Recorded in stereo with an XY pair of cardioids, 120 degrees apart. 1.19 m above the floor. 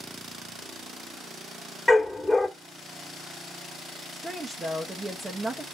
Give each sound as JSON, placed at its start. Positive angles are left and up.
{"t": 1.9, "sound": "a dog barking", "azimuth_deg": 10, "distance_m": 2.0}
{"t": 4.1, "sound": "a woman speaking", "azimuth_deg": -10, "distance_m": 1.3}